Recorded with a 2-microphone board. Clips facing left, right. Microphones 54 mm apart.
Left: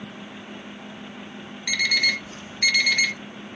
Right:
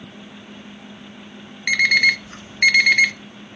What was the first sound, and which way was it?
An alarm clock, 55° right (ahead or behind).